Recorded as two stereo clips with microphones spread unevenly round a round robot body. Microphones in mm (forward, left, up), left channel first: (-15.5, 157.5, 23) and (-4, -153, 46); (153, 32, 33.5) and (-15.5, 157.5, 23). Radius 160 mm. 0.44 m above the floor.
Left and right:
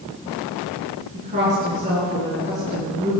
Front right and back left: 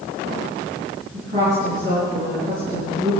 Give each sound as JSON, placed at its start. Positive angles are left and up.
{"t": 1.1, "sound": "a woman speaking", "azimuth_deg": -155, "distance_m": 7.0}